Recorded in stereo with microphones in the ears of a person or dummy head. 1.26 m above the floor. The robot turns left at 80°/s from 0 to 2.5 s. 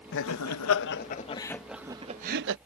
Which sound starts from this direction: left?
Laughter, at 0.1 s.